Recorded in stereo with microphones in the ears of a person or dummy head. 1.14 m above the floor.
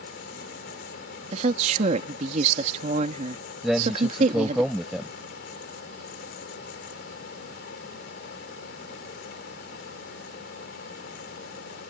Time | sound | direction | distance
0.0 | a fan | 65° left (ahead or behind) | ?
1.3 | a woman speaking | 40° right (ahead or behind) | ?
3.6 | a man speaking | centre (ahead or behind) | ?